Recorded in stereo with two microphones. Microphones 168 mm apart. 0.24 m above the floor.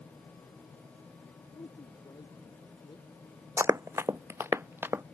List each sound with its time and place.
1.5 s a woman speaking: 25° left (ahead or behind)
3.6 s running footsteps: 15° right (ahead or behind)